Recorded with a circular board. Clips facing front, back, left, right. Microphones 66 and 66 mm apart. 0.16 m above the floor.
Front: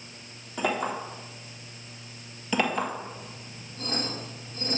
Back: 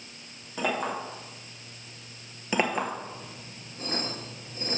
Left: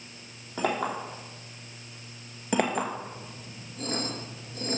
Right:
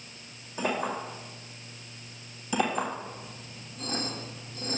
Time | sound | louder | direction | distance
0.6 | a clink | front 1 dB, left 1 dB | 90° left | 3.5 m
2.5 | a clink | even, left 1 dB | 110° left | 1.5 m